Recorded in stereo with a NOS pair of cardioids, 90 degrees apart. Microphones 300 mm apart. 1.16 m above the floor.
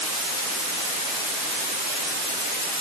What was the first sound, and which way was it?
Only background noise.